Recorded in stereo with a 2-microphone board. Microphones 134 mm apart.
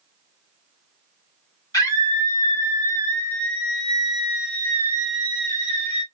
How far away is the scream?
About 1.9 m.